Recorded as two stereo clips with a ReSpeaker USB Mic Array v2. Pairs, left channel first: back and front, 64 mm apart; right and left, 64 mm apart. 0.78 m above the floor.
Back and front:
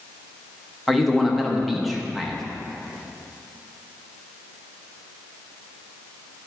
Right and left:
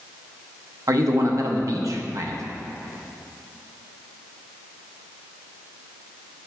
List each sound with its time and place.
0.9 s a man speaking: 90° left, 0.8 m